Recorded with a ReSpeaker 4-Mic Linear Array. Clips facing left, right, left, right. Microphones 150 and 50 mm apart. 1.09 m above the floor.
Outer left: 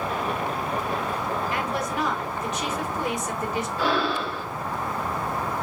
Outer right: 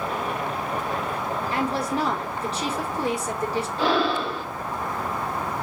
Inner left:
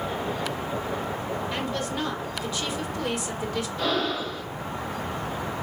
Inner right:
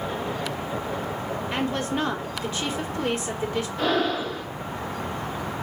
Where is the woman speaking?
30° right (ahead or behind), 1.3 m.